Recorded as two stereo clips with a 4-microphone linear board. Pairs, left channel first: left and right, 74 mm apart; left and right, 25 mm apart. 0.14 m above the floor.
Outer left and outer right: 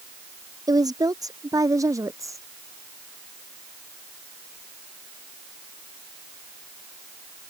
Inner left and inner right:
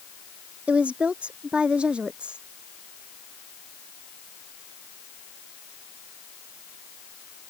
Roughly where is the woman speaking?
Right.